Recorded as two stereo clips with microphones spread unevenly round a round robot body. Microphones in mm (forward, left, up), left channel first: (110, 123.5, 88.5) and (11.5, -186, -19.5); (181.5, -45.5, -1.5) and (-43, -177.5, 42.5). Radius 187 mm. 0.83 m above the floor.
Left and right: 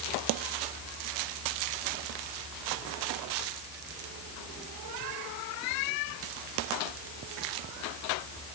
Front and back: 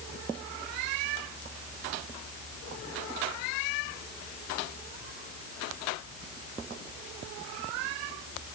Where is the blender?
No blender in this recording.